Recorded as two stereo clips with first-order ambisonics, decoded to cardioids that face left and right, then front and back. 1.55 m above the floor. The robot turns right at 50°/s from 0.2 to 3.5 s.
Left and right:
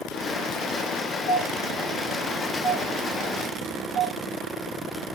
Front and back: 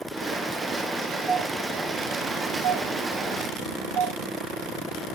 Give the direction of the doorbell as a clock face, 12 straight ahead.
8 o'clock.